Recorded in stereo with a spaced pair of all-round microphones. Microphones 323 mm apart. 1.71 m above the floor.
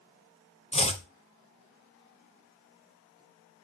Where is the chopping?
20° left (ahead or behind), 0.9 m.